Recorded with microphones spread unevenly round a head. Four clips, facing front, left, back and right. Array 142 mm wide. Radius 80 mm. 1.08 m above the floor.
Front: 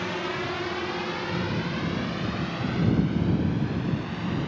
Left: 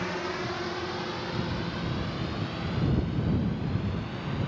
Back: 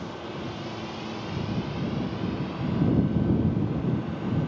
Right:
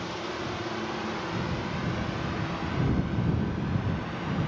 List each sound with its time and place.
0.0 s a drone: 25° left; by 4.5 s 10° right